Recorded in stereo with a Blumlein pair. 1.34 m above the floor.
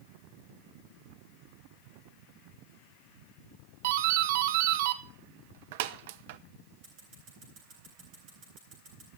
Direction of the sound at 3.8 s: 55° right.